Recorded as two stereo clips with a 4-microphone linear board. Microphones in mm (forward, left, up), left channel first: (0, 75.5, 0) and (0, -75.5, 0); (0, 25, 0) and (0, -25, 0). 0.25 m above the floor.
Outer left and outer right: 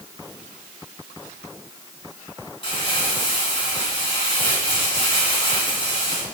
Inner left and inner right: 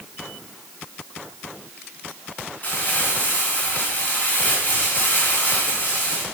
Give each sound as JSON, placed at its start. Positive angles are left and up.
{"t": 2.6, "sound": "crumpling", "side_deg": 35, "distance_m": 3.5}